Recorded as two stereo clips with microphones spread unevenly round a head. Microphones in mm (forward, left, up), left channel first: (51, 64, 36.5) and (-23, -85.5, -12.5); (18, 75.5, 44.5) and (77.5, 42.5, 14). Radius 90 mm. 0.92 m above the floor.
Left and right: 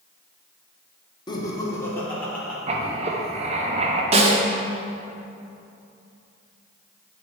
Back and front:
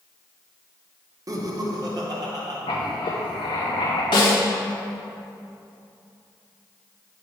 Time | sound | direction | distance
1.3 | laughter | 5° right | 1.3 m
2.7 | writing | 160° right | 0.8 m
4.1 | a snare drum | 175° right | 0.8 m